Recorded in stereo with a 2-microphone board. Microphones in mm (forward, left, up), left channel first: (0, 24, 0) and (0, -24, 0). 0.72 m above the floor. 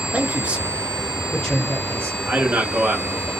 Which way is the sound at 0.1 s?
30° right (ahead or behind).